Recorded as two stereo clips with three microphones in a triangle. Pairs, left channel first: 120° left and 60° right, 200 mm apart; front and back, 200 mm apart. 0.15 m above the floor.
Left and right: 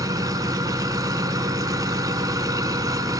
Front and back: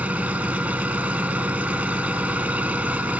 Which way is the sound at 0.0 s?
105° right.